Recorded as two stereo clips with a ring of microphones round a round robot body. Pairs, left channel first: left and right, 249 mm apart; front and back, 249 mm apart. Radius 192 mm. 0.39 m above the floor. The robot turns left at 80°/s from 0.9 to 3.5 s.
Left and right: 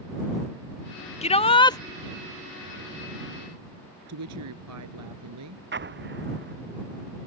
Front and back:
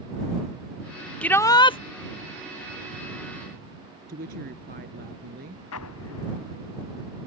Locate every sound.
1.2 s a shout: 80° left; by 1.8 s 35° left
4.1 s a woman speaking: 115° right
5.7 s an explosion: 45° right